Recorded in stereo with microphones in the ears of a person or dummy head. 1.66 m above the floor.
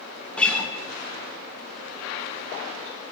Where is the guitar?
5° left (ahead or behind), 1.9 m.